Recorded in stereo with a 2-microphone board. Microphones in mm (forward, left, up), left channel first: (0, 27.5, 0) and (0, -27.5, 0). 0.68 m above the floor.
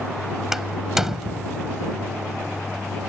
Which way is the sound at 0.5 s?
5° right (ahead or behind).